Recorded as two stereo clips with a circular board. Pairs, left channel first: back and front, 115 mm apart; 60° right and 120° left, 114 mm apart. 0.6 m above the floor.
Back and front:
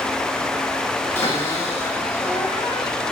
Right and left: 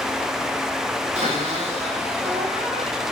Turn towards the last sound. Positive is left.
turn(degrees=120)